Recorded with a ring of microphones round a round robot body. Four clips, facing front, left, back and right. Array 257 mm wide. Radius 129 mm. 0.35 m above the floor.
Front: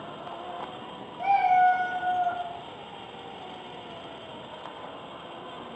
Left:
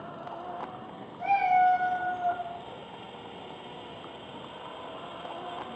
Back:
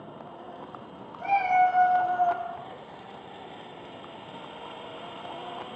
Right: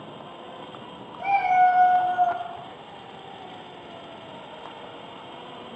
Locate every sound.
1.2 s a cat meowing: 35° right, 0.8 m; by 2.5 s 100° right, 0.8 m